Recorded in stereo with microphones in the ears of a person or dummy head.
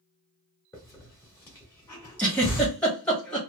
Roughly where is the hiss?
Centre.